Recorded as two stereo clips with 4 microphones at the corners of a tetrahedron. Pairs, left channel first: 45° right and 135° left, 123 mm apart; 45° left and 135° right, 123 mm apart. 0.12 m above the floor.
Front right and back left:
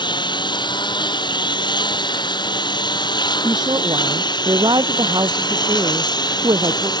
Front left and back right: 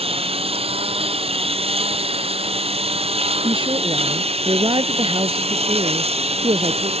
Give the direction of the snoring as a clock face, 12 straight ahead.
I don't hear snoring.